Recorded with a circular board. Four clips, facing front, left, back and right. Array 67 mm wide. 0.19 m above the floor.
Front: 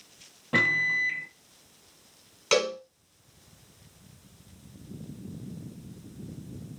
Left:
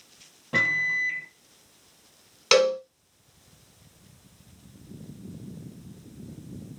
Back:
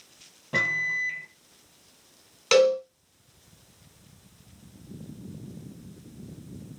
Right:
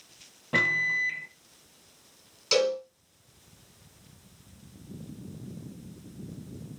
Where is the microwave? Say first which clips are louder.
Left 1 dB, front 2 dB; 25° right, 0.8 m.